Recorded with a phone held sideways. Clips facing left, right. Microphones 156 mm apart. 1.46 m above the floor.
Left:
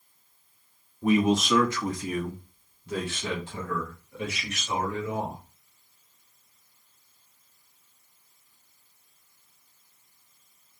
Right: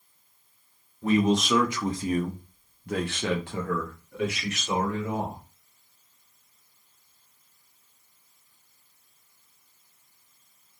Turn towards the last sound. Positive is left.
turn(degrees=-75)  # may be behind; listen again after turning